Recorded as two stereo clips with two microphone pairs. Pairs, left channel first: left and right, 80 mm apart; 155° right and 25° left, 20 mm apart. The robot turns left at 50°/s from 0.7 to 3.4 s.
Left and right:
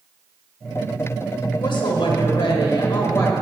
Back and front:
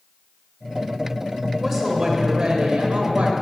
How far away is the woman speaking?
About 1.0 m.